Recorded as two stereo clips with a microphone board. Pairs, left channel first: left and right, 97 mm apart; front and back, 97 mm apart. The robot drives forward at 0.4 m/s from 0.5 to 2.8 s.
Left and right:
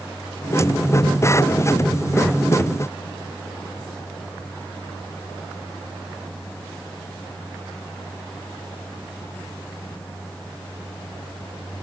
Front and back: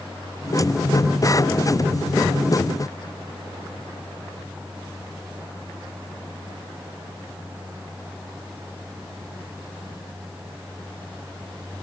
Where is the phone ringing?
No phone ringing in this recording.